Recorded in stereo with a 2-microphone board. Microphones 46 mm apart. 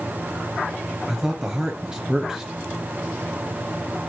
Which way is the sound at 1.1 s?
10° right (ahead or behind).